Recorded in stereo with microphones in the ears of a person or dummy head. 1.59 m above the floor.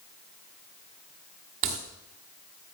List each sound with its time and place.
1.6 s a crack: 25° right (ahead or behind), 1.2 m